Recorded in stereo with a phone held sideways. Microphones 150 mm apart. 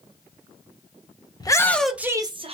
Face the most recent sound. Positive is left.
turn(degrees=-40)  # may be behind; listen again after turning